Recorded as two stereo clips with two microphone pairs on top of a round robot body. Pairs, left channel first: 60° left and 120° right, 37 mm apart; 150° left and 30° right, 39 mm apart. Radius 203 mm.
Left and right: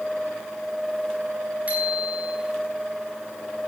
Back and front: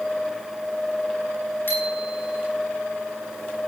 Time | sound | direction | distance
1.7 | a bicycle bell | straight behind | 10 m